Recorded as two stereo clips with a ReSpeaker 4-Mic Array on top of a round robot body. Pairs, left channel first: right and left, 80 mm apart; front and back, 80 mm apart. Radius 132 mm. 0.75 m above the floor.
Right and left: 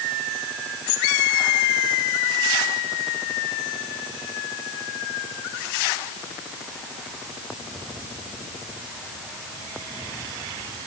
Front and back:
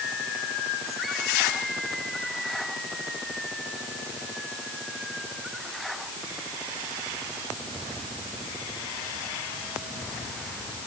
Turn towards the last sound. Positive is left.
No sound to turn to.